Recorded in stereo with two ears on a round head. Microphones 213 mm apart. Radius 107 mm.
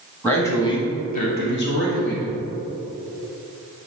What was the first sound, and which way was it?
A man speaking, 5° left (ahead or behind).